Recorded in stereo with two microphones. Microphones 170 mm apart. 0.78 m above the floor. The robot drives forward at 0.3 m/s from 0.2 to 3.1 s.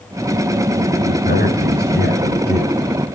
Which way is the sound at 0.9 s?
80° left.